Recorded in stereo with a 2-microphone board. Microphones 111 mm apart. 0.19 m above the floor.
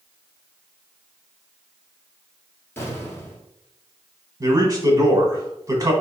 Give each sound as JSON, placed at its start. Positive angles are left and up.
{"t": 2.8, "sound": "an explosion", "side_deg": 20, "distance_m": 1.7}
{"t": 4.4, "sound": "a man speaking", "side_deg": -30, "distance_m": 1.2}